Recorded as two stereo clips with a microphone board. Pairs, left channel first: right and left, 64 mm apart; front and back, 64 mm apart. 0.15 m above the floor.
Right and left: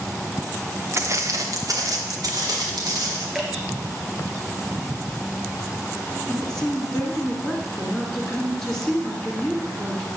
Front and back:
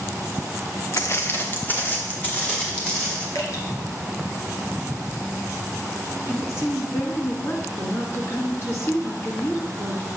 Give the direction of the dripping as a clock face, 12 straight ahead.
12 o'clock.